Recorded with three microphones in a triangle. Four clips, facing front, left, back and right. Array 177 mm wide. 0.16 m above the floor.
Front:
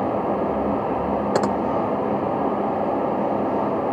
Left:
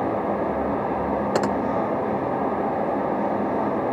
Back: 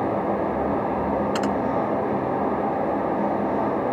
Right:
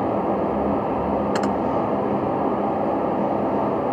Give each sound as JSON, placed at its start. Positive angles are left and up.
{"t": 1.4, "sound": "typing on a keyboard", "azimuth_deg": 30}